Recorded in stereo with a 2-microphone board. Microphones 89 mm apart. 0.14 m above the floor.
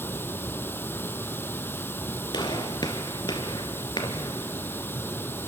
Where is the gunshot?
55° left (ahead or behind), 2.5 m.